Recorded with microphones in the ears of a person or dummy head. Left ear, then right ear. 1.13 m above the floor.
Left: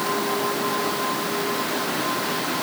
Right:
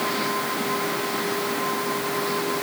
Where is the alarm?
No alarm in this recording.